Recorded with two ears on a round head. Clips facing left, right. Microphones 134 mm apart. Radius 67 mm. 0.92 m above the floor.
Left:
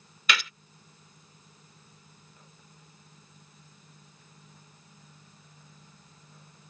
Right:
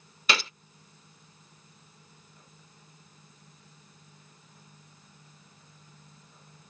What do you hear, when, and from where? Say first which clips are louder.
0.3 s a gunshot: right 1 dB; 30° right (ahead or behind)